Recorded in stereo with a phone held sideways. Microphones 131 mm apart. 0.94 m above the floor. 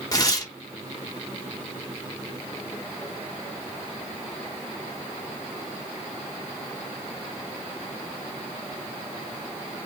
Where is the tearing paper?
30° left (ahead or behind), 1.1 m.